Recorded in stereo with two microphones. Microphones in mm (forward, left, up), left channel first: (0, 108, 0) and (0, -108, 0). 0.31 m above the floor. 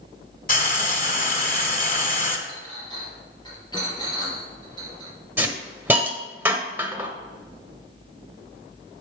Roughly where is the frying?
Left.